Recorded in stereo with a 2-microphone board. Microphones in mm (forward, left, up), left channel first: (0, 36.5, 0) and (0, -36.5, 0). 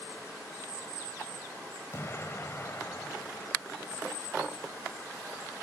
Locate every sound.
1.9 s an explosion: 35° left (ahead or behind), 1.7 m